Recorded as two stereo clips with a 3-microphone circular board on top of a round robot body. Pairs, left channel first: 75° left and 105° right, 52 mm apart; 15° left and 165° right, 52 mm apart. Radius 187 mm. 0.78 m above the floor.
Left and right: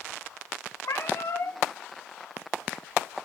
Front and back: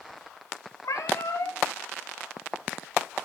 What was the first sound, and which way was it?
A cat meowing, 40° left.